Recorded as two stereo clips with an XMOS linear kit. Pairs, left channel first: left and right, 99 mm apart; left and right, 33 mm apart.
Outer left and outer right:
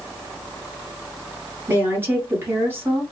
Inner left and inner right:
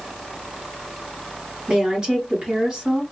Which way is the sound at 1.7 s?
25° right (ahead or behind).